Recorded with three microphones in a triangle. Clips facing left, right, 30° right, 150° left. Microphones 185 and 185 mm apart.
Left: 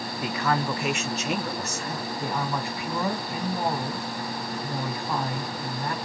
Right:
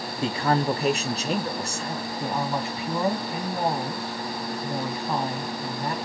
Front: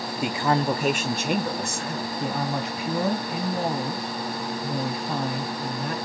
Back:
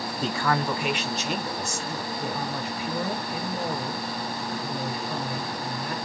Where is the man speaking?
105° right, 0.6 m; by 2.1 s 30° right, 1.3 m.